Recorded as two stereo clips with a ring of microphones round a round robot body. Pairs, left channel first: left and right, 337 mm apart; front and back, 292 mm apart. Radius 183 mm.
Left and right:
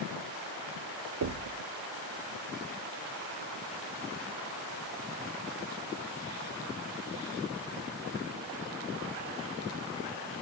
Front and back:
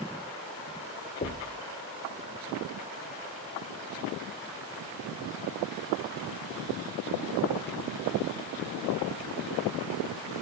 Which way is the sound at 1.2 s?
60° right.